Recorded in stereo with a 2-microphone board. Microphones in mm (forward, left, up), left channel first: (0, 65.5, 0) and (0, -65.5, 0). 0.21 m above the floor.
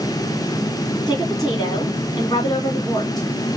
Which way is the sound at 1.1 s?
30° left (ahead or behind).